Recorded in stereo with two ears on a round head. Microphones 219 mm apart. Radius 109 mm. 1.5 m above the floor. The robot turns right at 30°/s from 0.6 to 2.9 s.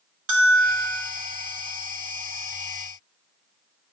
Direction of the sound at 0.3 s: 60° right (ahead or behind).